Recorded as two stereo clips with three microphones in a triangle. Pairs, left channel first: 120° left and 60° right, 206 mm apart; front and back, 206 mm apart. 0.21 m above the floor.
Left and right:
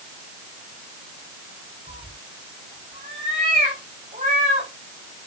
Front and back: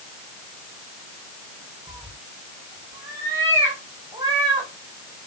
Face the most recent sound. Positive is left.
turn(degrees=-110)